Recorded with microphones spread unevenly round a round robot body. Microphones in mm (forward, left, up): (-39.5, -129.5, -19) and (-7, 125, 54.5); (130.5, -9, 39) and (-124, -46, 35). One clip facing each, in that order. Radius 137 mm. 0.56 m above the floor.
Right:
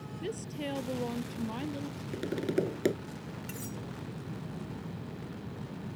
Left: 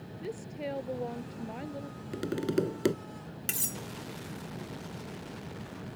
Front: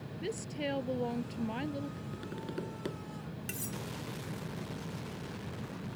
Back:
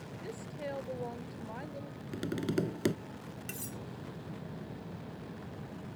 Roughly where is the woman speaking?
Ahead right.